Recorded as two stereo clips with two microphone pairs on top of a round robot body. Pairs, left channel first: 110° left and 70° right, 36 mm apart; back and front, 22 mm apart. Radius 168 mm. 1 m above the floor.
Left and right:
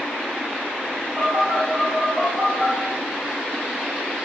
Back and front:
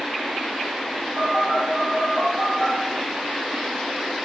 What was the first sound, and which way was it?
A phone buzzing, 175° left.